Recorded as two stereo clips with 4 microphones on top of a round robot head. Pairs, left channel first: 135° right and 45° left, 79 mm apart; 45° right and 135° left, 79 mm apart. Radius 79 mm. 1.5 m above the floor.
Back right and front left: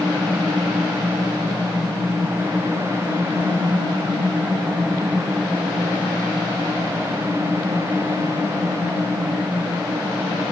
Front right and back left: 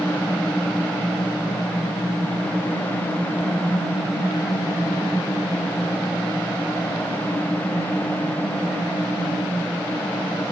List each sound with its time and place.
Only background noise.